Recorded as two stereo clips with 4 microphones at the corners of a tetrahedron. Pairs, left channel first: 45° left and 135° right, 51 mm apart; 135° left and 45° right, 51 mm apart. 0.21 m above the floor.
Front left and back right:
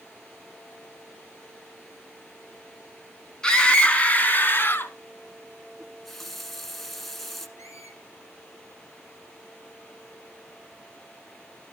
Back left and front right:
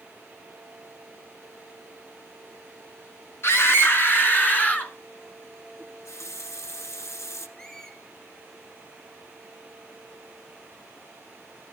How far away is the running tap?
About 1.5 m.